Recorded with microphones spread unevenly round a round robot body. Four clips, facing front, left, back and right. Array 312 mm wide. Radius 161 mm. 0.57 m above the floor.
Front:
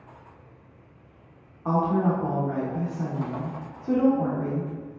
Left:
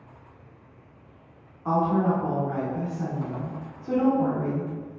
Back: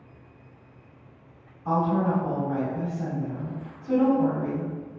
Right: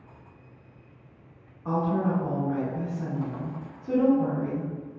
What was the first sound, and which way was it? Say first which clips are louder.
A woman speaking: left 3 dB, front 1 dB; 30° left.